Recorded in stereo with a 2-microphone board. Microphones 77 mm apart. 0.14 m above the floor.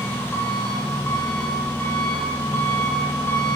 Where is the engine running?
25° left (ahead or behind), 8.5 m.